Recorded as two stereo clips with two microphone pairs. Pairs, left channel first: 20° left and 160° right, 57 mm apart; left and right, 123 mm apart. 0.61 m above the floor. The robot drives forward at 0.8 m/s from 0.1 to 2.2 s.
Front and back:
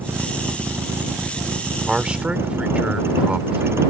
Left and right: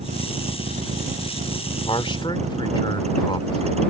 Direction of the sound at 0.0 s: 105° right.